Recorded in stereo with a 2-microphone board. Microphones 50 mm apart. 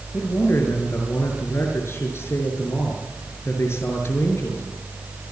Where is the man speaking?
60° left (ahead or behind), 6 m.